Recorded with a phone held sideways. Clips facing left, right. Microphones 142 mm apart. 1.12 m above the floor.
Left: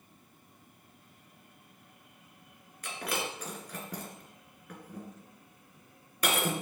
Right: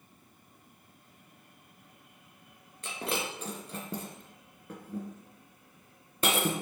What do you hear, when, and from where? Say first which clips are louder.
2.8 s breaking glass: right 1 dB; 25° right (ahead or behind), 2.5 m